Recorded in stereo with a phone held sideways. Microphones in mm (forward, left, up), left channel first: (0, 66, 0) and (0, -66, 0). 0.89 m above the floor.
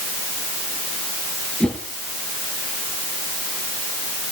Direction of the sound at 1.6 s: 5° left (ahead or behind).